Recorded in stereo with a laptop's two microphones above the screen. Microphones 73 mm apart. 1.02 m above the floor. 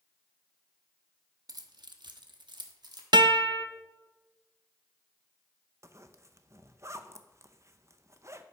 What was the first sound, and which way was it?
Keys jangling, 55° right (ahead or behind).